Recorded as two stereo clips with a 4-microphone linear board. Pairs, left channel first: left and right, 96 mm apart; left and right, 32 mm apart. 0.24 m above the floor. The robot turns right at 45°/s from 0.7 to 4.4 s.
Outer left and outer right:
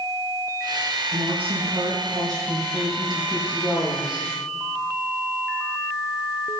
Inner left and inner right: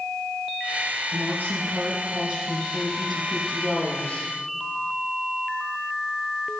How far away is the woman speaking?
About 6 m.